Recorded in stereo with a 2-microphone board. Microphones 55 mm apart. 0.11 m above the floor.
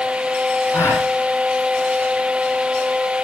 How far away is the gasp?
About 5 m.